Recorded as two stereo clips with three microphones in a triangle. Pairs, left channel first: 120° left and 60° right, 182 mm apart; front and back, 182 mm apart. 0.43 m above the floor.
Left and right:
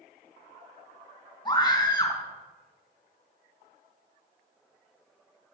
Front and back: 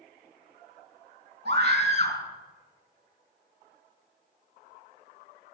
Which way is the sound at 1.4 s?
175° right.